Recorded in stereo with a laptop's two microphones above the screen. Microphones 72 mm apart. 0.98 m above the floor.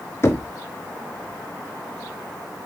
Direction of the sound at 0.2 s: 35° left (ahead or behind).